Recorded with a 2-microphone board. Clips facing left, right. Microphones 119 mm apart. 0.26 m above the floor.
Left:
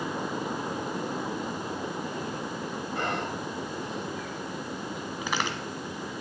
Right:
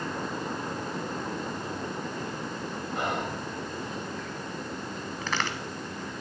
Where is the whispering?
15° right (ahead or behind), 1.6 m.